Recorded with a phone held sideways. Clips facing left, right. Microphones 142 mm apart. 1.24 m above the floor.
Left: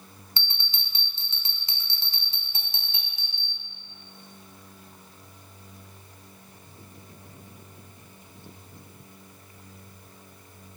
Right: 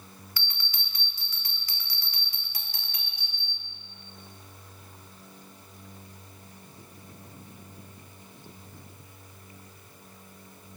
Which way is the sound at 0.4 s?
25° left (ahead or behind).